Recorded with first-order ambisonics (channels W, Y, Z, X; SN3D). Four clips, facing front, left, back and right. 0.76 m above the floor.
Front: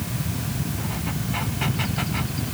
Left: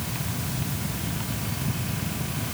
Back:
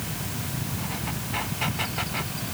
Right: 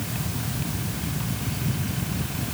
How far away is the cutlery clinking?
I don't hear cutlery clinking.